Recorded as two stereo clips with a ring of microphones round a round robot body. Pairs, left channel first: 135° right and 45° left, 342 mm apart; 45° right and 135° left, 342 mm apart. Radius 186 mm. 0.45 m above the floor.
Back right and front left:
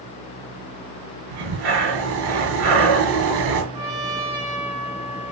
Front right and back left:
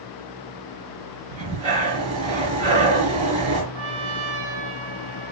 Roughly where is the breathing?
Ahead left.